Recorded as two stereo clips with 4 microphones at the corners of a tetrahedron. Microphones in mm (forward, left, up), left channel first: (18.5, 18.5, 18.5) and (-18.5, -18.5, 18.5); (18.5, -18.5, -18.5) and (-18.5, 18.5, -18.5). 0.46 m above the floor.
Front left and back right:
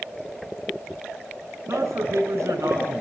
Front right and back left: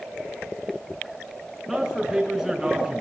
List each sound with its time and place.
1.7 s a man speaking: 140° right, 6.5 m